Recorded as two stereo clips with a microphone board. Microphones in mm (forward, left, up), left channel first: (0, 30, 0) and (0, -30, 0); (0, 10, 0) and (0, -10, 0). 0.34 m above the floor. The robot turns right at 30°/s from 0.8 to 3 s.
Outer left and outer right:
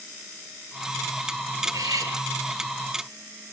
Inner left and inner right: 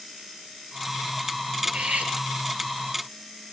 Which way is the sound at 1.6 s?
75° right (ahead or behind).